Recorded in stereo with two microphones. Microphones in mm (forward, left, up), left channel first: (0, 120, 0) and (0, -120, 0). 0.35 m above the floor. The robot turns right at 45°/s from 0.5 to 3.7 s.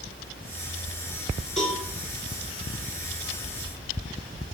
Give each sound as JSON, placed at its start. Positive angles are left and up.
{"t": 1.6, "sound": "a cowbell", "side_deg": 0, "distance_m": 4.0}